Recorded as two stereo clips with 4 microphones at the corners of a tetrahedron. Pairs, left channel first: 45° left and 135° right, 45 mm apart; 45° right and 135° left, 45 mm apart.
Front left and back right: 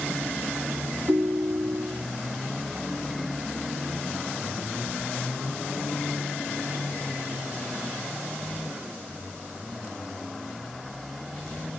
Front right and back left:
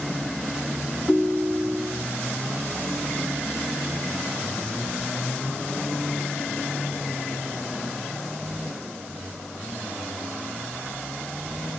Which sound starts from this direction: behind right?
A ringtone, at 1.1 s.